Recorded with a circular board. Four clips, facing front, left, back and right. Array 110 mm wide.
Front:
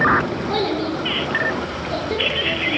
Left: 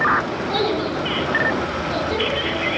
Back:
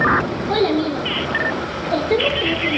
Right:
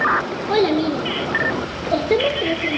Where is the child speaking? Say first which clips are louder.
Right 6 dB, back 6 dB; 110° right, 2.5 m; by 2.8 s 115° right, 3.5 m.